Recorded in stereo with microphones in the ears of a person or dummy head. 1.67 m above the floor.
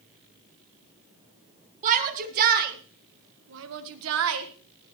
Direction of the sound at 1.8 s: 40° right (ahead or behind).